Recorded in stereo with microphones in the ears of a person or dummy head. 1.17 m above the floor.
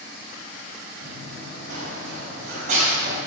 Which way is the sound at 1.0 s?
65° right (ahead or behind).